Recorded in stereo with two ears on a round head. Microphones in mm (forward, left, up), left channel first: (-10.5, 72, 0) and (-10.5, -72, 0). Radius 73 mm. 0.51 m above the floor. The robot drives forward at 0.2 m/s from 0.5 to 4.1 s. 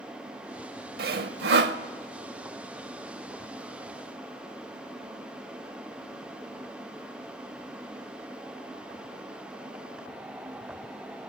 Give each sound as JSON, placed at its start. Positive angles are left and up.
{"t": 1.0, "sound": "sawing", "side_deg": -60, "distance_m": 0.8}